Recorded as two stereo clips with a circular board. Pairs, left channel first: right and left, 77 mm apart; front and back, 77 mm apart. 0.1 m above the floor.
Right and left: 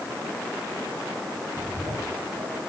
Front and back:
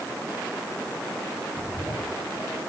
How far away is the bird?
About 4 m.